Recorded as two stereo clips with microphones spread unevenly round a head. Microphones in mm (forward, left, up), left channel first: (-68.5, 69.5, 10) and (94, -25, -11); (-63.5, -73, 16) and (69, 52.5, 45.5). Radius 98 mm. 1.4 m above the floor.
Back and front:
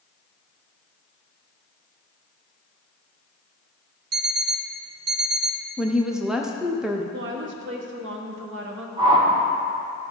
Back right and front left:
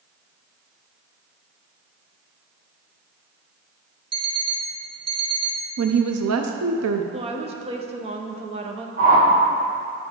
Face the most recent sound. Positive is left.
turn(degrees=30)